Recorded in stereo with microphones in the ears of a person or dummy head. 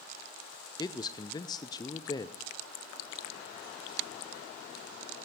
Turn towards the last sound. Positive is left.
turn(degrees=25)  # may be behind; listen again after turning